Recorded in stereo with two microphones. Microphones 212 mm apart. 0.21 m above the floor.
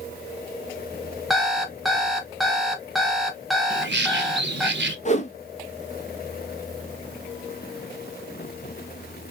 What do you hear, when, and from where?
1.3 s an alarm clock: centre (ahead or behind), 0.9 m
3.7 s a bird: 65° right (ahead or behind), 0.6 m
5.0 s a whoosh: 35° left (ahead or behind), 0.6 m